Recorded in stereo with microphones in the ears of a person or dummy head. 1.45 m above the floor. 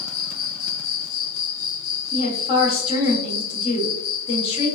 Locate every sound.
0.0 s an insect: 75° left (ahead or behind), 1.3 m
2.1 s a woman speaking: 35° left (ahead or behind), 0.9 m